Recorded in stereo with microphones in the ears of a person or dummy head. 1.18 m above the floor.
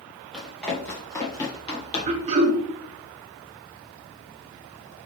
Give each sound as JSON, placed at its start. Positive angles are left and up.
{"t": 0.3, "sound": "running footsteps", "side_deg": 0, "distance_m": 1.8}
{"t": 2.1, "sound": "throat clearing", "side_deg": -40, "distance_m": 0.9}